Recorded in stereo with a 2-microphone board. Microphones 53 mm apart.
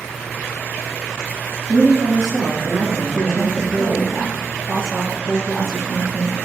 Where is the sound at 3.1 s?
Centre (ahead or behind), 2 m.